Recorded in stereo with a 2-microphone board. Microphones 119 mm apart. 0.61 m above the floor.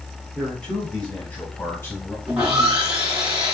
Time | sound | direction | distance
0.3 | a man speaking | 5° left (ahead or behind) | 4.5 m
2.3 | sawing | 10° right (ahead or behind) | 5.5 m